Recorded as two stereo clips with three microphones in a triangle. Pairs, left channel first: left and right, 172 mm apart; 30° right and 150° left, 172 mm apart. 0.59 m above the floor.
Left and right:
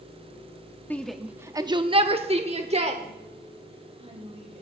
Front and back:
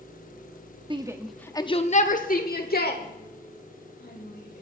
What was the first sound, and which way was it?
A shout, 160° left.